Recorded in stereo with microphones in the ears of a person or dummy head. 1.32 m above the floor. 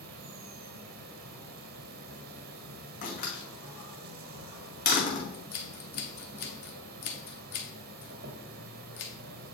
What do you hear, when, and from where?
0.0 s an insect: 60° right (ahead or behind), 0.8 m
3.0 s a door slam: 50° left (ahead or behind), 1.8 m
5.3 s scissors: 45° left (ahead or behind), 1.1 m